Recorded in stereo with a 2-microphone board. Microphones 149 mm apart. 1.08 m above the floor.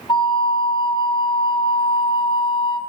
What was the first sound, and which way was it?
A flute, 30° left (ahead or behind).